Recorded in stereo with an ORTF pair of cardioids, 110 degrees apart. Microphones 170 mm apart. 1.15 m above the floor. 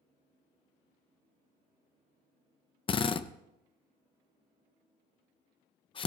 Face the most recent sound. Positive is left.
turn(degrees=30)